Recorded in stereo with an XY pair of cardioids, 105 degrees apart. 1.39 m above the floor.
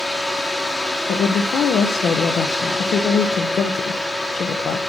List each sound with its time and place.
0.0 s a fan: 15° left, 1.2 m
1.1 s a woman speaking: 60° left, 0.8 m